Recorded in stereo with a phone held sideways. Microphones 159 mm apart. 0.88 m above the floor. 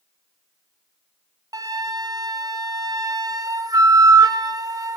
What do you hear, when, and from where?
1.5 s a flute: 20° right (ahead or behind), 1.1 m